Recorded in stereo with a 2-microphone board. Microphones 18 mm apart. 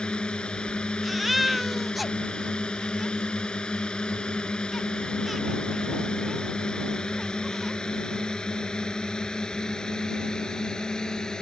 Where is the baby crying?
10° right (ahead or behind).